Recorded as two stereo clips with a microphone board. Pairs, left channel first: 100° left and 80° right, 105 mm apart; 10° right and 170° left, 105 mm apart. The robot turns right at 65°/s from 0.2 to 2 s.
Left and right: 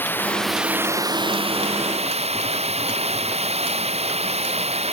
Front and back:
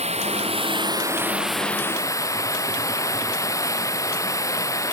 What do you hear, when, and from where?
0.0 s running water: 170° left; by 4.9 s 70° right